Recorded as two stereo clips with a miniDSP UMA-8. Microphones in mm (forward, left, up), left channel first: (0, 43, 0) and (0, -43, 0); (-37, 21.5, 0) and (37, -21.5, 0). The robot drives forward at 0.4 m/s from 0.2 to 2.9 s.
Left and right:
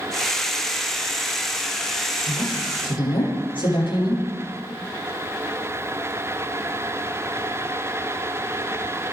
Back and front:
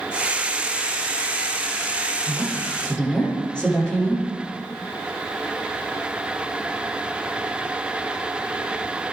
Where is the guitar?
I don't hear a guitar.